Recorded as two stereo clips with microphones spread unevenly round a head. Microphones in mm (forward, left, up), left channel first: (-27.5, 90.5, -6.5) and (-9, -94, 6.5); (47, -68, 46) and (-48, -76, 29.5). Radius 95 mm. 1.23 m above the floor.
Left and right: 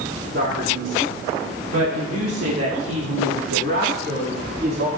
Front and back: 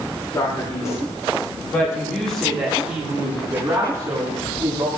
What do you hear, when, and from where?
0.3 s a man speaking: 45° right, 4 m; by 4.9 s 130° right, 4 m